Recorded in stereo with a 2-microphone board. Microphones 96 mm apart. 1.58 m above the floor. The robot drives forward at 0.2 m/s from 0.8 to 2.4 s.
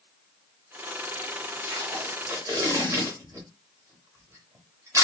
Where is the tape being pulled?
30° right (ahead or behind), 1.2 m.